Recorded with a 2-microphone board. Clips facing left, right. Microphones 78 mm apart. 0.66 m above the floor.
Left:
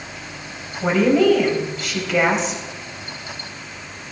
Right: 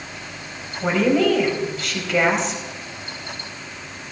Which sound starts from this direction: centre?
A woman speaking, at 0.8 s.